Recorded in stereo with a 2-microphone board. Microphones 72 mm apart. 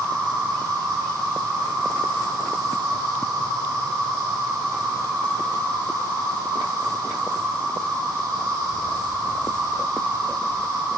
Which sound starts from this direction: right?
An insect, at 0.0 s.